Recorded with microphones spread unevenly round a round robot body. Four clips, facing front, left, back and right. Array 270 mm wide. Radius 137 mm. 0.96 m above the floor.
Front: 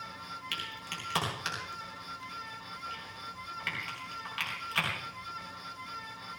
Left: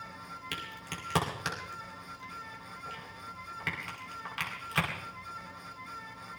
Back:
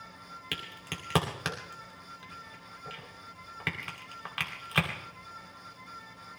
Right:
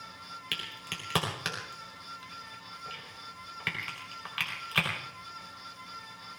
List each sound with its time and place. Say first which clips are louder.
0.5 s a crack: left 1 dB, front 1 dB; straight behind, 3 m